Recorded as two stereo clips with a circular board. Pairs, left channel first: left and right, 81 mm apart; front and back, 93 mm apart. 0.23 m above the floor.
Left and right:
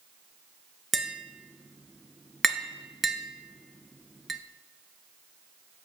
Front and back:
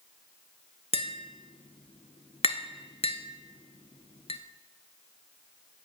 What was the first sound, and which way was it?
Tapping, straight ahead.